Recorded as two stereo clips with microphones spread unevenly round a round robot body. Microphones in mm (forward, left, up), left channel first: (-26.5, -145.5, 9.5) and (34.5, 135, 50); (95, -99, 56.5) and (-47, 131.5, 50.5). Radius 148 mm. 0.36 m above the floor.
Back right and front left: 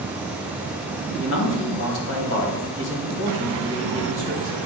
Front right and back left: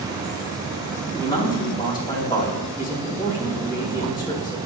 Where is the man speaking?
135° right, 2 m.